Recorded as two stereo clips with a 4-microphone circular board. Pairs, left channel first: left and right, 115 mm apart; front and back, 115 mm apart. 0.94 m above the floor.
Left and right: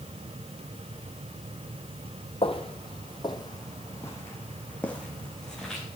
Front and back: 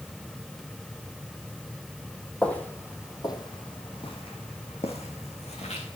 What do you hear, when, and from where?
2.4 s footsteps: 80° left, 1.7 m; by 5.9 s 5° left, 3.5 m